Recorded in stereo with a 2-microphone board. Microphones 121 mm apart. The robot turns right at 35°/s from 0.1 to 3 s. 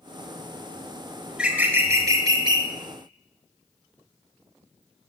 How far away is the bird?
About 0.6 m.